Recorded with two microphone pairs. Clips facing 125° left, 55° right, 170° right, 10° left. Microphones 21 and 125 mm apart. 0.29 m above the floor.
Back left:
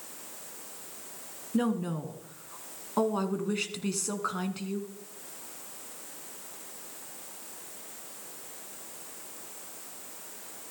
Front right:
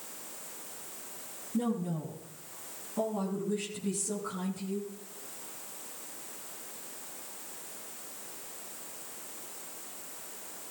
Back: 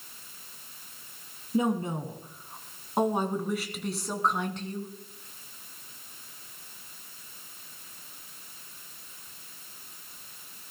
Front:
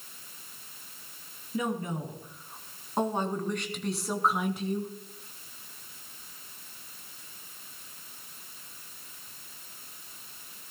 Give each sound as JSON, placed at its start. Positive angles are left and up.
{"t": 1.5, "sound": "a woman speaking", "azimuth_deg": 130, "distance_m": 3.0}